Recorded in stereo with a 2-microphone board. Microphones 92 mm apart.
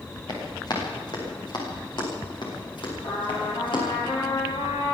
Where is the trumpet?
65° left (ahead or behind), 7.5 m.